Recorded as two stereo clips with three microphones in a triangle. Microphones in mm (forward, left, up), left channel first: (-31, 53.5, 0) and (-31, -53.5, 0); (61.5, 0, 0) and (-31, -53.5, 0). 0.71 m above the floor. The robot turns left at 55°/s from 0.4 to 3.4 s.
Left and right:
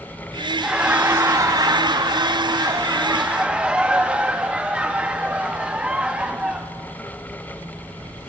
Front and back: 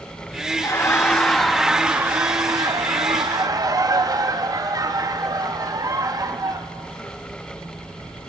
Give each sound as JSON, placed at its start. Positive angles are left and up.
{"t": 0.6, "sound": "laughter", "azimuth_deg": -10, "distance_m": 0.7}